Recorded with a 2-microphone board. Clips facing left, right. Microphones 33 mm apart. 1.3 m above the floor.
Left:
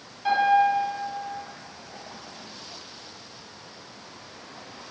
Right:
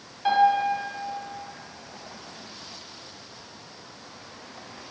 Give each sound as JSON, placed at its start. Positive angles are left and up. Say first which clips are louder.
{"t": 0.2, "sound": "a piano", "louder": "even", "side_deg": -30, "distance_m": 1.5}